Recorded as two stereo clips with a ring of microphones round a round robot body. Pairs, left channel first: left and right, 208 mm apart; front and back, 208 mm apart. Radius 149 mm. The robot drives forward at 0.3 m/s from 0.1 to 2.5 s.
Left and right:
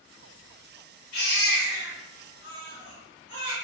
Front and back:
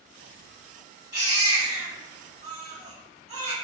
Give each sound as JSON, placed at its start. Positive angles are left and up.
{"t": 1.1, "sound": "a baby crying", "azimuth_deg": 105, "distance_m": 1.5}